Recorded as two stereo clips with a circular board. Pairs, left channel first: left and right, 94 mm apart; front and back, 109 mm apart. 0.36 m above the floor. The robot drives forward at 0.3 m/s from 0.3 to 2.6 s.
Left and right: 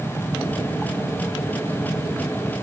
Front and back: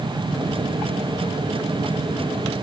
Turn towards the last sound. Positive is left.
No sound to turn to.